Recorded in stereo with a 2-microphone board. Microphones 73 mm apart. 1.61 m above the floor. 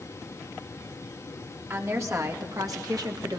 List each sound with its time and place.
1.7 s a woman speaking: 40° right (ahead or behind), 2.5 m; by 3.4 s 70° right (ahead or behind), 1.8 m